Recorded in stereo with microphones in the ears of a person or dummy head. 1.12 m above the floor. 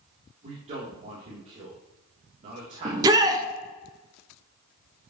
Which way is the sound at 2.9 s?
15° right (ahead or behind).